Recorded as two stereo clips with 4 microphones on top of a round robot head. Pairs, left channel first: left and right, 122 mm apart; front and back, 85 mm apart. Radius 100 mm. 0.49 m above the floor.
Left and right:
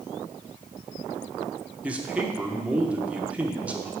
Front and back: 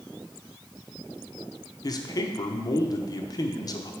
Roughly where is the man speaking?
Ahead.